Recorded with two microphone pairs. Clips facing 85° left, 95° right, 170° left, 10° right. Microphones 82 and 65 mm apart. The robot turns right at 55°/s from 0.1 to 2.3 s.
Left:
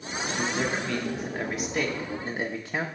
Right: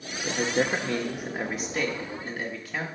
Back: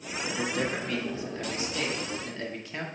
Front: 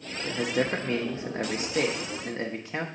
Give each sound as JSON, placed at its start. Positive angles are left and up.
{"t": 0.2, "sound": "a man speaking", "azimuth_deg": -80, "distance_m": 0.8}